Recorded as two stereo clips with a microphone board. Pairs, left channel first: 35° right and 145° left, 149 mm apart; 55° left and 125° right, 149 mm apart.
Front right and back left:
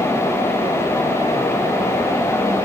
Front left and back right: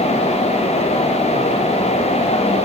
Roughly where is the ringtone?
I don't hear a ringtone.